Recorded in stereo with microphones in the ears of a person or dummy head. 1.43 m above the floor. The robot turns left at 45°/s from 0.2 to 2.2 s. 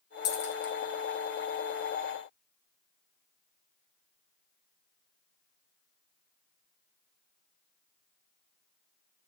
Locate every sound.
0.2 s a dropped coin: 45° left (ahead or behind), 1.6 m; by 0.7 s 60° left (ahead or behind), 1.6 m